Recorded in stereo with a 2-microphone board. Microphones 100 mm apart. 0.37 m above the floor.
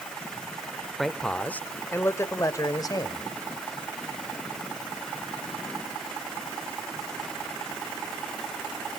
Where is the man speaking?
Centre (ahead or behind), 1.1 m; by 3.2 s 45° left (ahead or behind), 1.7 m.